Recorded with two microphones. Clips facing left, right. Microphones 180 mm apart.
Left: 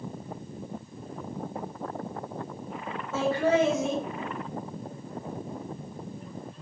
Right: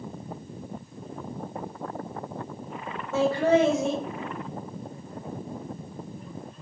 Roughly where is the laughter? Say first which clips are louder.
Right 3 dB; right.